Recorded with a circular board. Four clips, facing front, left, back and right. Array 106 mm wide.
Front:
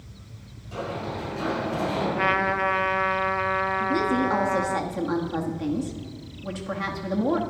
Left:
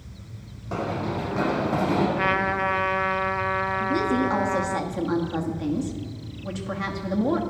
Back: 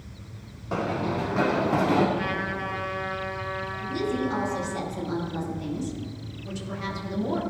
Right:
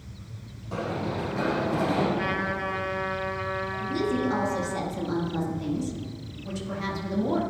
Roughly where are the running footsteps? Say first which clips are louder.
Left 2 dB, back 4 dB; behind left.